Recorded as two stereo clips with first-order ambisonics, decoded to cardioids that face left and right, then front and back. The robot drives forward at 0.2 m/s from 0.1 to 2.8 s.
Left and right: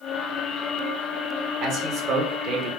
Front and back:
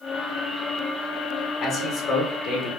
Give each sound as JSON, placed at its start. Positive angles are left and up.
{"t": 1.6, "sound": "a man speaking", "azimuth_deg": -55, "distance_m": 1.4}